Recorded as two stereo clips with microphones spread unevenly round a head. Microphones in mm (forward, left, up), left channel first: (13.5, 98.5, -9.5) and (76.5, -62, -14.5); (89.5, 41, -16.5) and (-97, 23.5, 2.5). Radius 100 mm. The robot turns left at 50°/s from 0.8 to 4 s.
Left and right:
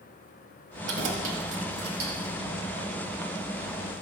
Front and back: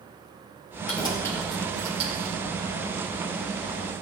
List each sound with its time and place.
0.9 s keys jangling: 55° right, 2 m; by 2.4 s 130° right, 2 m